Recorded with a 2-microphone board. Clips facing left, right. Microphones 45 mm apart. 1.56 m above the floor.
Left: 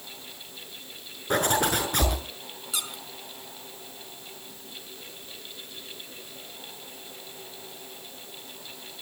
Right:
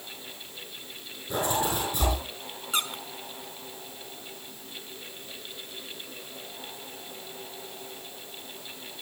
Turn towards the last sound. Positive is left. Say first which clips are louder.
# right 5 dB
turn(degrees=-40)  # may be behind; listen again after turning